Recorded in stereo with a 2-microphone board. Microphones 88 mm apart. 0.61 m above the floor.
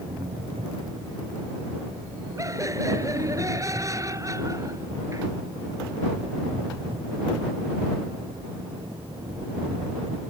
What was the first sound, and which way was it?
An engine running, 75° right (ahead or behind).